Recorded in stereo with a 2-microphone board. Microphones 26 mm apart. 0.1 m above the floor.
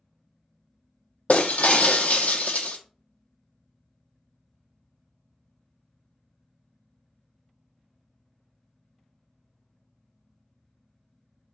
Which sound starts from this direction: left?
Breaking glass, at 1.3 s.